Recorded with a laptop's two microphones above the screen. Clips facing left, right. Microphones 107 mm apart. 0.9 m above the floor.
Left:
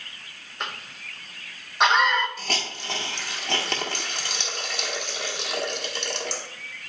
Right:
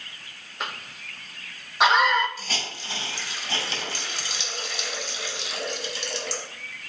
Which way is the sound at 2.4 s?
60° left (ahead or behind).